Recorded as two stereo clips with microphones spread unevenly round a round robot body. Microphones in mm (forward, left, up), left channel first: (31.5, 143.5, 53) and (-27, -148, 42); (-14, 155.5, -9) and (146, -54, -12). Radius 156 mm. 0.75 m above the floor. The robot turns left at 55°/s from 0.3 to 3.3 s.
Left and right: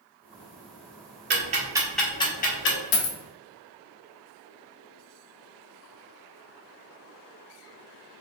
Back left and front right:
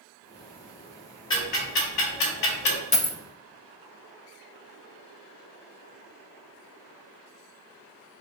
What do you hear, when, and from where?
1.3 s ticking: 155° right, 0.7 m; by 2.8 s 125° left, 0.7 m
2.9 s a dropped coin: 65° left, 0.7 m; by 3.2 s 50° left, 0.7 m